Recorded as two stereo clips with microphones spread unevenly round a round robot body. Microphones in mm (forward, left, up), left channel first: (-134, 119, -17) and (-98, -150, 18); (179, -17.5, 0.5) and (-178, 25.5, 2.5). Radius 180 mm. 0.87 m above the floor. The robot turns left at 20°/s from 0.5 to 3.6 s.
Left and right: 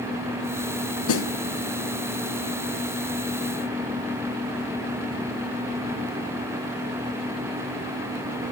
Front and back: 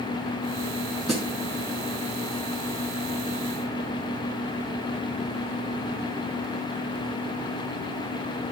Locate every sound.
1.1 s a snare drum: 85° left, 3.5 m; by 1.3 s 80° left, 3.5 m